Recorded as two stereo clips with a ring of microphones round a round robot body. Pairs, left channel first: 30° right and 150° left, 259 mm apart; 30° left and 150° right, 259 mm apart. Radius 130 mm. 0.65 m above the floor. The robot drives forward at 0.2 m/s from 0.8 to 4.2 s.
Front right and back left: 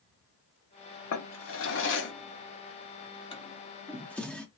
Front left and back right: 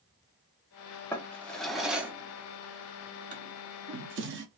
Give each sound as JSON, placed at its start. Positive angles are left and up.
{"t": 1.1, "sound": "a drawer", "azimuth_deg": -50, "distance_m": 0.7}